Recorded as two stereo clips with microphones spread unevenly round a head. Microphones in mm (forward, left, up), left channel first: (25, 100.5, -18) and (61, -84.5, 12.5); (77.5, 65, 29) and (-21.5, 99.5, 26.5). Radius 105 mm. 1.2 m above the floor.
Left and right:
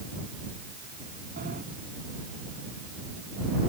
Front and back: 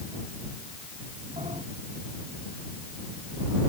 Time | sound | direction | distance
1.4 | a sliding door | 130° right | ?